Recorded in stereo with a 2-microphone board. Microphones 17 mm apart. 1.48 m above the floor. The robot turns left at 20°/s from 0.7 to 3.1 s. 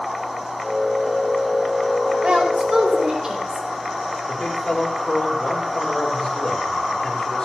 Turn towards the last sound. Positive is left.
turn(degrees=55)  # may be behind; listen again after turning